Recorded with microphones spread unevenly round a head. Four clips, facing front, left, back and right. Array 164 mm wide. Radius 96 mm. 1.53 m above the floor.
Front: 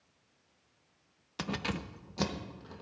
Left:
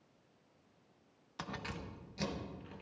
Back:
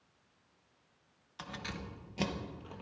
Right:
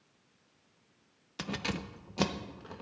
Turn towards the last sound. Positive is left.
turn(degrees=-100)